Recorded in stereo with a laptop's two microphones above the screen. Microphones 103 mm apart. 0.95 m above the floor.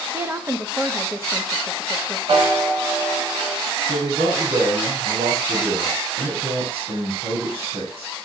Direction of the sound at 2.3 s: 65° right (ahead or behind).